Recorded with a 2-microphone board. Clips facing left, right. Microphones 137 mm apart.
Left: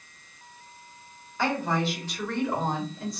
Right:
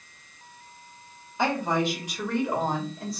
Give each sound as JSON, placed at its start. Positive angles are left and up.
{"t": 1.4, "sound": "a woman speaking", "side_deg": -20, "distance_m": 2.5}